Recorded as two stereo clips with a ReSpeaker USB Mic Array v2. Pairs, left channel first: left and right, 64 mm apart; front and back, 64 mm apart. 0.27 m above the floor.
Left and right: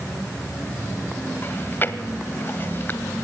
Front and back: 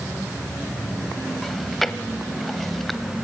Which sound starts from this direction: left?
Chewing, at 1.4 s.